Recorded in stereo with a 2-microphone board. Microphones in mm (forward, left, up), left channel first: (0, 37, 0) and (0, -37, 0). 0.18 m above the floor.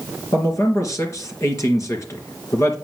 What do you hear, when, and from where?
0.3 s a man speaking: 40° left (ahead or behind), 3 m